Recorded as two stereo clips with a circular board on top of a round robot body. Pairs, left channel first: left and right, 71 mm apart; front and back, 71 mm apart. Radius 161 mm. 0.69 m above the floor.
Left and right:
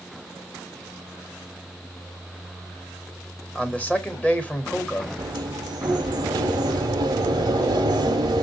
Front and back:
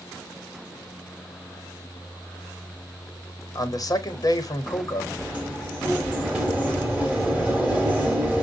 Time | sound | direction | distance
3.5 | a man speaking | 25° left | 1.2 m
5.2 | a sliding door | 105° right | 0.6 m